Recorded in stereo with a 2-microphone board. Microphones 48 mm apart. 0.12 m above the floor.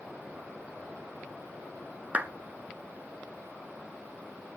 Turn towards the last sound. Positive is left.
turn(degrees=-30)  # may be behind; listen again after turning